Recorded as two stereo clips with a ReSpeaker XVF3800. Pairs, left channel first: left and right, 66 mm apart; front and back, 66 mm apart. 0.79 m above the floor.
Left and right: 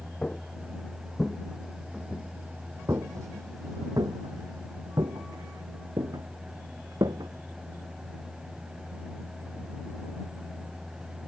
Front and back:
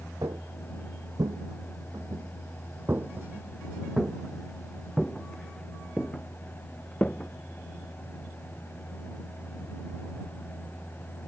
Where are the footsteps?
165° left; by 7.3 s 70° right.